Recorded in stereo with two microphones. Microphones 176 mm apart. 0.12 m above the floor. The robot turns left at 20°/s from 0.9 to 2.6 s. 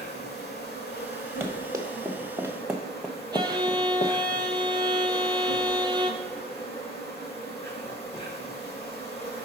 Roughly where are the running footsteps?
Centre.